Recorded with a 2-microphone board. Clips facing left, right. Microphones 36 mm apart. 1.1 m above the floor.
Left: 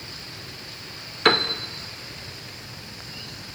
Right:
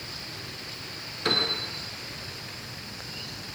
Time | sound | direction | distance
1.2 | a piano | 60° left (ahead or behind) | 1.8 m